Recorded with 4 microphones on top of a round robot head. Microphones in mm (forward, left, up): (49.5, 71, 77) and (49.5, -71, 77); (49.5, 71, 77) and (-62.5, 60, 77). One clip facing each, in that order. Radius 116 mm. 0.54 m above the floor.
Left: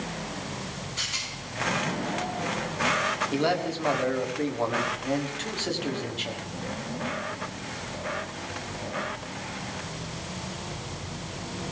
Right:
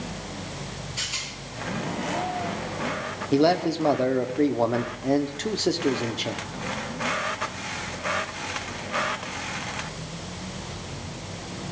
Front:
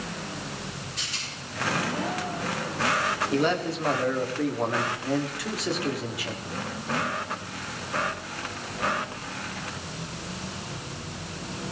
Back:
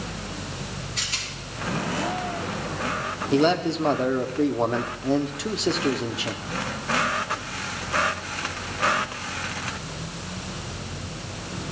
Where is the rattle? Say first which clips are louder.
Right 1 dB, back 3 dB; 170° right, 6 m.